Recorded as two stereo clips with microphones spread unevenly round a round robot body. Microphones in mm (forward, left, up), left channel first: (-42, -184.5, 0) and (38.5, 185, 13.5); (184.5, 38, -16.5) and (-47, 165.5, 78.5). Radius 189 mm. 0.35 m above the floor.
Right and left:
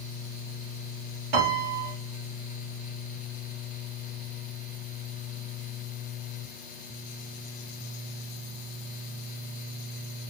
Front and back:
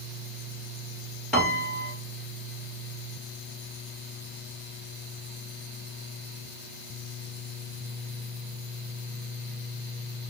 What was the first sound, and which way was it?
A piano, 60° left.